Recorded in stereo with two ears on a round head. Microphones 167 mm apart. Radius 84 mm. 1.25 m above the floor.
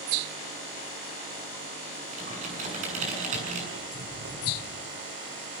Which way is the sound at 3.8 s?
65° right (ahead or behind).